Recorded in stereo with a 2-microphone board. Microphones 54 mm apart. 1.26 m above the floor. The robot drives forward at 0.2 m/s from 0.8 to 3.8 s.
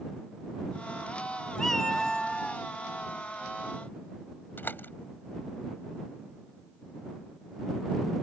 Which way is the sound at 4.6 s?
40° left (ahead or behind).